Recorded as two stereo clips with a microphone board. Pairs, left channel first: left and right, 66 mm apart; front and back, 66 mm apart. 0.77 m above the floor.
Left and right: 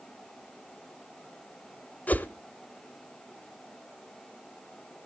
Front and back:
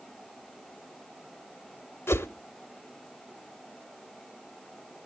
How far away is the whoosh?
About 0.6 m.